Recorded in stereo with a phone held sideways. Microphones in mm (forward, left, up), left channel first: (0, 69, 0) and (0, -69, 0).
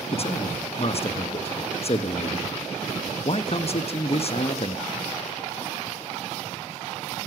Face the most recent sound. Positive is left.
turn(degrees=45)  # may be behind; listen again after turning